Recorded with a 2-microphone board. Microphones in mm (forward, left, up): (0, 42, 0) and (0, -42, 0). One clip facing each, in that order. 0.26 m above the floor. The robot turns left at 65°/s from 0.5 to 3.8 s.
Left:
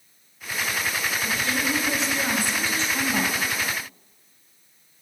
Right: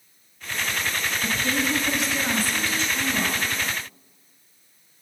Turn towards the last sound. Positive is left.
turn(degrees=70)